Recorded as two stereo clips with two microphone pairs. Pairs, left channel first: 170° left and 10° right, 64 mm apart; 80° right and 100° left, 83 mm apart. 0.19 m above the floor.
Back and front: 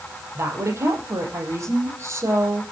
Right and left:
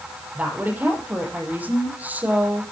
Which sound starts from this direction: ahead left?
A woman speaking, at 0.3 s.